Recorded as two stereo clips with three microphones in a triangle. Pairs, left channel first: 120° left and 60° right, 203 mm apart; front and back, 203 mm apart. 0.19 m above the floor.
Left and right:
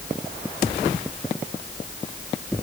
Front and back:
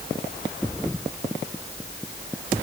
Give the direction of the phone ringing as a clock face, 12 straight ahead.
No phone ringing in this recording.